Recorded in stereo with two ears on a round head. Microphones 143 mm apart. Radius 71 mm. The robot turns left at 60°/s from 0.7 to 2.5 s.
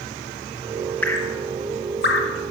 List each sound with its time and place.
1.0 s dripping: 10° left (ahead or behind), 1.1 m; by 2.5 s 80° left, 1.1 m